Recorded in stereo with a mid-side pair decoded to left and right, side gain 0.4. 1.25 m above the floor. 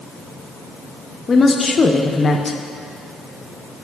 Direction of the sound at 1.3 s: 35° left.